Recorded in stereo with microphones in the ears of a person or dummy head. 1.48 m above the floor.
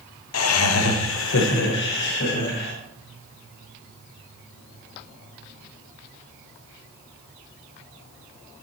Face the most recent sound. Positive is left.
turn(degrees=55)  # may be behind; listen again after turning